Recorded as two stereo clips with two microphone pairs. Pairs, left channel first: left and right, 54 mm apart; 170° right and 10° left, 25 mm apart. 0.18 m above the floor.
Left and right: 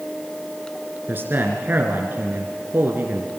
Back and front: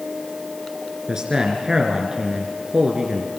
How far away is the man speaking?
About 3 m.